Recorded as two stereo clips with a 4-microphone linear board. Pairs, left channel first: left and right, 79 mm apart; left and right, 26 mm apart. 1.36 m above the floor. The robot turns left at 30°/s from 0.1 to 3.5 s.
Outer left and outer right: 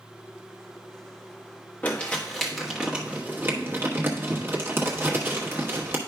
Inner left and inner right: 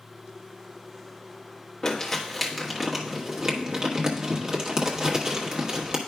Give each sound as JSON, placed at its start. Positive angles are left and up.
{"t": 1.8, "sound": "crumpling", "side_deg": 20, "distance_m": 1.4}